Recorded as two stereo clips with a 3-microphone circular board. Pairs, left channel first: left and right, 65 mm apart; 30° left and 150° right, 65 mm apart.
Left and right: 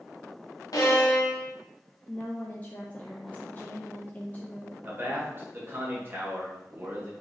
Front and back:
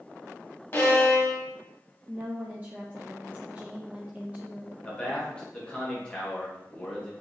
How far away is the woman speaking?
About 0.6 m.